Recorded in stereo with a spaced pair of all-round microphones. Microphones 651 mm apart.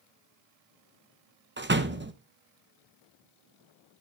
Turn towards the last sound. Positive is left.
turn(degrees=-20)  # may be behind; listen again after turning